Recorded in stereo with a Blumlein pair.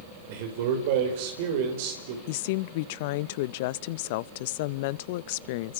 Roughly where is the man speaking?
Ahead right.